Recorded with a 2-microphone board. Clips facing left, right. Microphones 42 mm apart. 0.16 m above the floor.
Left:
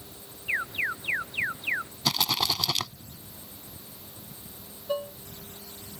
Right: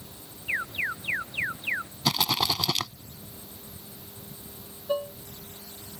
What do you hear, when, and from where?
0.5 s an alarm: centre (ahead or behind)
2.0 s a rattle: 10° right (ahead or behind)
4.9 s dishes clattering: 5° right (ahead or behind)